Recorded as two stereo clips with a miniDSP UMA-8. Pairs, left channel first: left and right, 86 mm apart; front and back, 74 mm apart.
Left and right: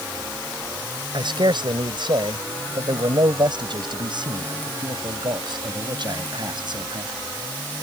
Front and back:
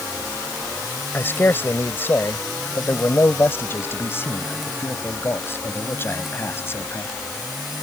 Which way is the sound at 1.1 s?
60° right.